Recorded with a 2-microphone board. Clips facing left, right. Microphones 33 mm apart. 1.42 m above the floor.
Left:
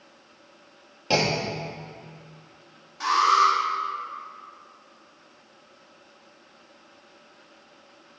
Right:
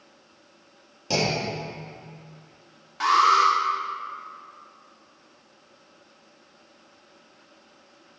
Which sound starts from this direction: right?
An alarm, at 3.0 s.